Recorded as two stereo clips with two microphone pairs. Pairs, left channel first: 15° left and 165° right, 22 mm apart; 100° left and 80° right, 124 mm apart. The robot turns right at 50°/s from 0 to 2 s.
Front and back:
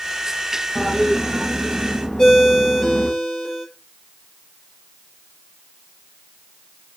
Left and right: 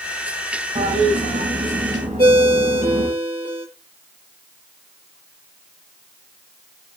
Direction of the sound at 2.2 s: 40° right.